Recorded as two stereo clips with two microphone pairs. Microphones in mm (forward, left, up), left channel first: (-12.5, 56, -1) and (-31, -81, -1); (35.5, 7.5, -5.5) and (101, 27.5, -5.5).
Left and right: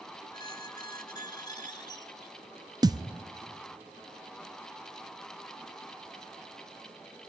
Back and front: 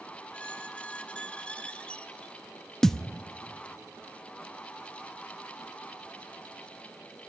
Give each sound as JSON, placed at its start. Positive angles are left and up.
{"t": 0.3, "sound": "a squeak", "azimuth_deg": 130, "distance_m": 1.2}
{"t": 2.8, "sound": "a thud", "azimuth_deg": -70, "distance_m": 0.6}